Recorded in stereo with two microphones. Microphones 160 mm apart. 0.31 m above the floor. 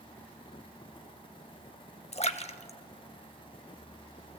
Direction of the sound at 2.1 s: 45° left (ahead or behind).